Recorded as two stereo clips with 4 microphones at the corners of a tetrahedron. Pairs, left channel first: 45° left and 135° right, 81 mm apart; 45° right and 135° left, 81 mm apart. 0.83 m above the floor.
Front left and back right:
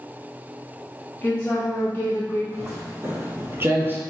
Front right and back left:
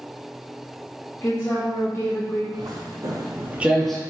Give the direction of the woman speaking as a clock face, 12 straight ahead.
12 o'clock.